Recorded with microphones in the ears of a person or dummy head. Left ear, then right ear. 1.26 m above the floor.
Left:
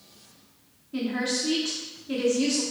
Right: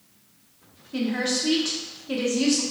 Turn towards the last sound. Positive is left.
turn(degrees=-15)  # may be behind; listen again after turning